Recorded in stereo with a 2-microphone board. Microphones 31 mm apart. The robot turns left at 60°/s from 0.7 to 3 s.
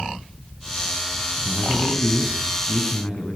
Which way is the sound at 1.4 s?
120° left.